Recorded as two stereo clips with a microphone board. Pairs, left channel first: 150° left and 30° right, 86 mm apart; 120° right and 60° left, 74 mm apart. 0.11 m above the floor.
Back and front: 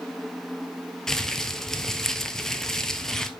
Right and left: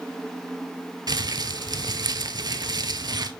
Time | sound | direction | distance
1.1 | crumpling | 65° left | 0.5 m